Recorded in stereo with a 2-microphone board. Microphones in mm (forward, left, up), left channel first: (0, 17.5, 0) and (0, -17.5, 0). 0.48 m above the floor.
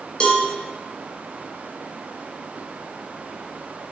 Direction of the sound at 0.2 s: 30° left (ahead or behind).